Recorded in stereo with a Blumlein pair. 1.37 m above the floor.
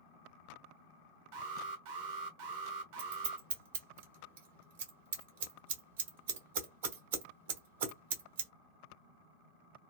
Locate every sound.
1.3 s an alarm: 50° right, 0.8 m
3.0 s scissors: 60° right, 1.0 m